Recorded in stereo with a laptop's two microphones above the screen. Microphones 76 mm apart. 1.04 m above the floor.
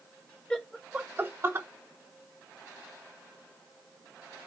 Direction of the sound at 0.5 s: 10° left (ahead or behind).